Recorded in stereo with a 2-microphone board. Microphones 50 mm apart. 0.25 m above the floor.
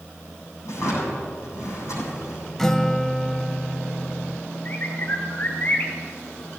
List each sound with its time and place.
0.7 s a drawer: 75° left (ahead or behind), 7.5 m
2.6 s a guitar: 10° left (ahead or behind), 0.6 m
4.7 s a bird: 40° left (ahead or behind), 2.5 m